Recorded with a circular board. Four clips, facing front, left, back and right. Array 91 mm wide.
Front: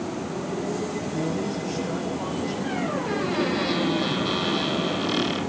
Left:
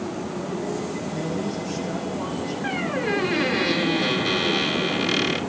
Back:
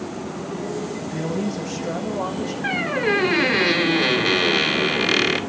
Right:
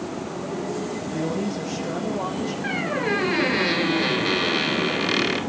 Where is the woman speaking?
160° right, 9 m; by 2.5 s 150° right, 9.5 m.